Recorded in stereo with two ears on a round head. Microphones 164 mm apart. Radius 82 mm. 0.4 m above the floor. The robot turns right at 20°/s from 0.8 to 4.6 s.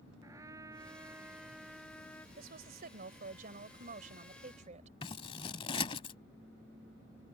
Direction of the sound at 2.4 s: 100° right.